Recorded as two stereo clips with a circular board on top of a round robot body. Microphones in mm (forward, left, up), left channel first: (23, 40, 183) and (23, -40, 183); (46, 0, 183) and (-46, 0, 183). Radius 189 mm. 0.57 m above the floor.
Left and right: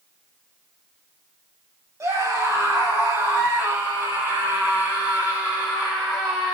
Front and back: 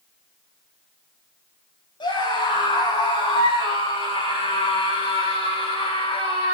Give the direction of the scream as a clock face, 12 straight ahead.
1 o'clock.